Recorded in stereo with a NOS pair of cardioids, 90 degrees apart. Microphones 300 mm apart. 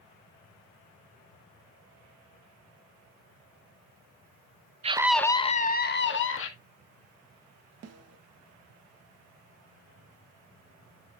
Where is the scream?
20° right, 0.7 m; by 6.5 s 45° left, 1.8 m.